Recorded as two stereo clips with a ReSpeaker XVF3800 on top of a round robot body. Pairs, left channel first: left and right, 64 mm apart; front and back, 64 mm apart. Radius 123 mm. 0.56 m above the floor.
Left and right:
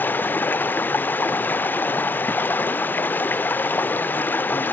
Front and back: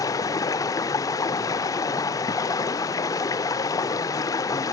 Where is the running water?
30° left, 0.7 m.